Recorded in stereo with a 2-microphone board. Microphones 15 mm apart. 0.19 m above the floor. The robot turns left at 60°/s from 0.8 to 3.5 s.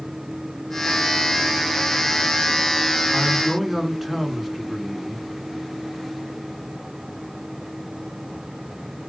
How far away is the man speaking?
About 1.9 m.